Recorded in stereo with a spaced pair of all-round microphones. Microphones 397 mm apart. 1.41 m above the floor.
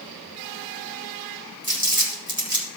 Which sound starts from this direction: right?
Crumpling, at 1.6 s.